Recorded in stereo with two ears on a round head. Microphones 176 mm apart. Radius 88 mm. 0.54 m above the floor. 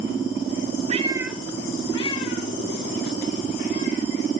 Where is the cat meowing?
35° right (ahead or behind), 0.5 m; by 4.1 s 45° left (ahead or behind), 2.5 m.